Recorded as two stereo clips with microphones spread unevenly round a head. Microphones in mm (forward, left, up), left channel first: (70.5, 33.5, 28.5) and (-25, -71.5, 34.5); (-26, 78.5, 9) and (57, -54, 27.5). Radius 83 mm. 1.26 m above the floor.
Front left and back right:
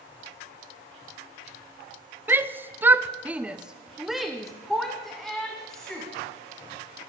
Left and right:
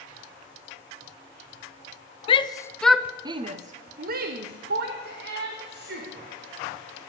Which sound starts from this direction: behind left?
A shout, at 2.3 s.